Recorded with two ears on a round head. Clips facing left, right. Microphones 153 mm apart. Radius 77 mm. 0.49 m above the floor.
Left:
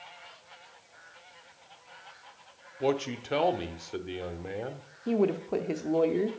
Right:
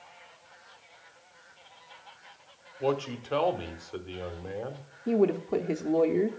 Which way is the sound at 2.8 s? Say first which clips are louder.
Even; 15° left (ahead or behind).